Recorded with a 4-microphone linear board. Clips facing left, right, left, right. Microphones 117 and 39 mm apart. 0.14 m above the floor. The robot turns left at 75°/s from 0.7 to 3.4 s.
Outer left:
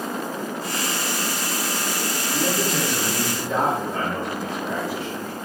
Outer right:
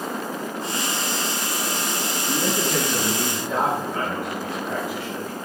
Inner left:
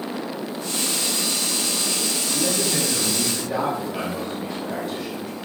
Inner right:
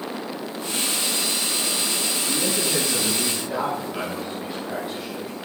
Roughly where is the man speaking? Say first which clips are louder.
Even, inner left 1 dB; right.